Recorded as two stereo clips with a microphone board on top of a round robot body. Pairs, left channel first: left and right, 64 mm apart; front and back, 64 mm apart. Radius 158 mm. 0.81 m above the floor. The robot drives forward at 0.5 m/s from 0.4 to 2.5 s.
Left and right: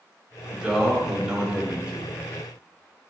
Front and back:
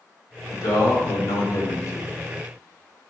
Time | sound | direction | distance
0.5 | a man speaking | 10° right | 2 m